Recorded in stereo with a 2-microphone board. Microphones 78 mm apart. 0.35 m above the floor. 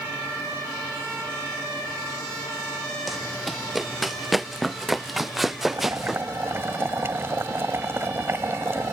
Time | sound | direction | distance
3.1 | running footsteps | centre (ahead or behind) | ?
5.7 | boiling | 30° right (ahead or behind) | ?